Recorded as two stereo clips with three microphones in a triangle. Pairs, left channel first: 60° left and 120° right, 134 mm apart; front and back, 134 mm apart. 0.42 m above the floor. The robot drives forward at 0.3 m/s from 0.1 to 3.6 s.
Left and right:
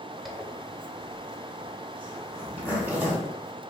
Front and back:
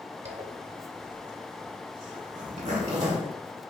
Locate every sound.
0.2 s a zipper: 150° left, 0.8 m; by 3.3 s 165° left, 1.6 m